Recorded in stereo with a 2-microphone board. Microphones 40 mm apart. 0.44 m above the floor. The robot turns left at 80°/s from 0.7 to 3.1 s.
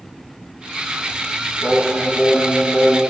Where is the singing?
80° left, 0.8 m; by 3.0 s 30° right, 0.8 m.